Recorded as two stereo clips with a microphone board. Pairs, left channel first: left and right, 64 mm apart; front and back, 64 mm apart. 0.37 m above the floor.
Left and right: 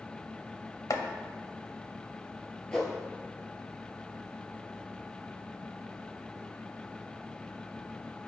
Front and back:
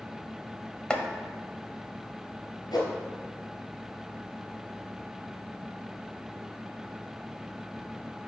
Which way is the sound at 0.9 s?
75° left.